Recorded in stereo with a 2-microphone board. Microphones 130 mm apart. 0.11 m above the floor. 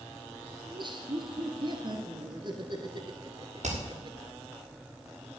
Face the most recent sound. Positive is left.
turn(degrees=-80)